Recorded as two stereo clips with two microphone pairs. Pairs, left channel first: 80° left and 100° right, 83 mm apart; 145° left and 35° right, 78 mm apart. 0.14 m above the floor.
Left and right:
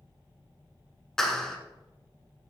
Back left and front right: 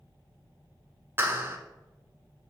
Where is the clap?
Straight ahead, 1.4 m.